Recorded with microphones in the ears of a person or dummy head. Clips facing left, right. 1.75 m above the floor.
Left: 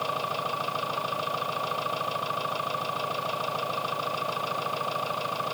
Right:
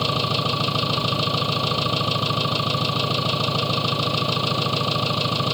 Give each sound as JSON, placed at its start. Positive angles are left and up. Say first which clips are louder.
{"t": 0.0, "sound": "an engine running", "louder": "right 7 dB", "side_deg": -55}